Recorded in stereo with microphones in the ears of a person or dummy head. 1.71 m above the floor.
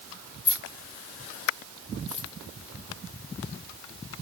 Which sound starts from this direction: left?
Keys jangling, at 0.5 s.